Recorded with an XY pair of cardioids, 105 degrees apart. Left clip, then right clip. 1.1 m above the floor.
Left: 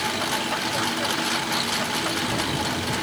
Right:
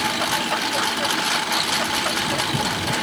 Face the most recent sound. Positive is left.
turn(degrees=-25)